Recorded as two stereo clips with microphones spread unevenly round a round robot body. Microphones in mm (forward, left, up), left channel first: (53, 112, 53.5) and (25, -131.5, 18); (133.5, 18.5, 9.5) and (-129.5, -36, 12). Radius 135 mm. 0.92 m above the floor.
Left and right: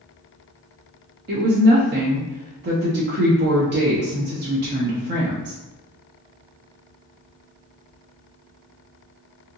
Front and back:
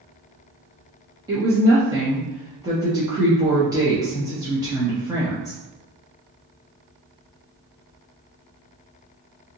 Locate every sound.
1.3 s a woman speaking: 95° right, 0.6 m